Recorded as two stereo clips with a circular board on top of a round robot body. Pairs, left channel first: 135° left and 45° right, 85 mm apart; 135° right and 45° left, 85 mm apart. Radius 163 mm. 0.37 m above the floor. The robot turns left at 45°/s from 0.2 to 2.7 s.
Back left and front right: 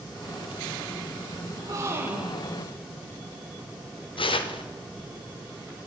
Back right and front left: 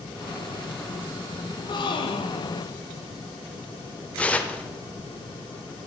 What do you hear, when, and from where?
1.5 s a gasp: 90° right, 0.7 m; by 2.7 s 145° right, 0.7 m
4.2 s tearing paper: 150° left, 0.7 m